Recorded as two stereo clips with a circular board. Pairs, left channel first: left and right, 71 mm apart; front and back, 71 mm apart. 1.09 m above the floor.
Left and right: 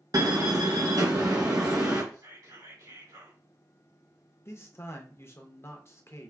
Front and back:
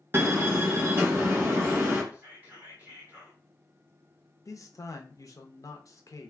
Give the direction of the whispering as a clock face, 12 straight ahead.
4 o'clock.